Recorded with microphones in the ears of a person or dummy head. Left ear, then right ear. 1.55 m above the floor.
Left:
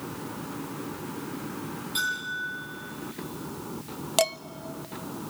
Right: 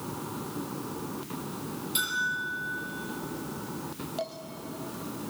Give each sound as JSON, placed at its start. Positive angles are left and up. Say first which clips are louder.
{"t": 1.9, "sound": "a bell", "louder": "even", "side_deg": -10, "distance_m": 9.5}
{"t": 4.2, "sound": "dishes clattering", "louder": "left 11 dB", "side_deg": 45, "distance_m": 0.7}